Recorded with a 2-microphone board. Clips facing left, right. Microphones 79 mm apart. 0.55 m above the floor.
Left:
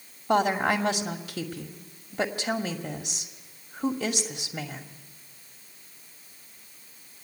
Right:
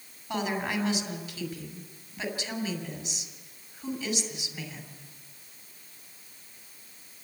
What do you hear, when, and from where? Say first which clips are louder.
0.3 s a woman speaking: left 8 dB; 70° left (ahead or behind), 2.5 m